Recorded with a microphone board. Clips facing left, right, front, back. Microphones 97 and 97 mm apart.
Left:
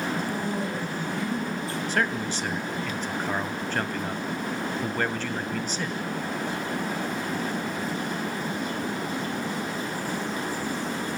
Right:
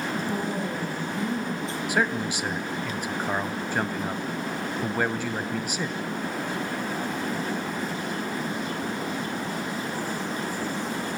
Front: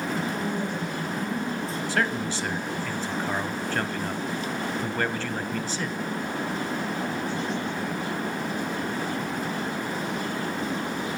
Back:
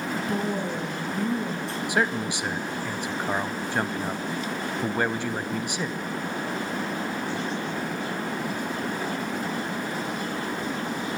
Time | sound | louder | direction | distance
0.3 | a woman speaking | even, back 1 dB | 160° right | 6.5 m
1.9 | a man speaking | right 2 dB, back 2 dB | 140° right | 0.9 m